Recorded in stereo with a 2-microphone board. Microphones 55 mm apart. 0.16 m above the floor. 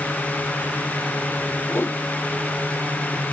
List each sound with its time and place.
1.7 s a whoosh: 45° left (ahead or behind)